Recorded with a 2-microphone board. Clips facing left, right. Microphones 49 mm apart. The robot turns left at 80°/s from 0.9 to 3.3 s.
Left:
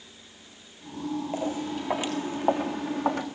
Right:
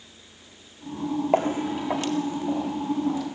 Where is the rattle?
No rattle in this recording.